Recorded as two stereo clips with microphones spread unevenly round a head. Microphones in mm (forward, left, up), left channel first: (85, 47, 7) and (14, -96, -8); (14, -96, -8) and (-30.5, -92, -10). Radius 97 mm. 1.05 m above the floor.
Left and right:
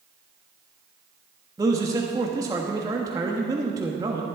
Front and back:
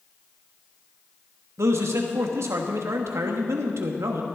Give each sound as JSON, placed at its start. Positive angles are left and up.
{"t": 1.6, "sound": "a man speaking", "azimuth_deg": 170, "distance_m": 1.2}